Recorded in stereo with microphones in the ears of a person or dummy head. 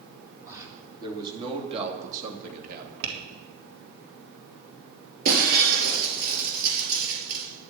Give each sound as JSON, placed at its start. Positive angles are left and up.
{"t": 0.5, "sound": "a man speaking", "side_deg": -15, "distance_m": 3.0}
{"t": 3.0, "sound": "tapping", "side_deg": -65, "distance_m": 2.5}
{"t": 5.2, "sound": "breaking glass", "side_deg": -50, "distance_m": 4.0}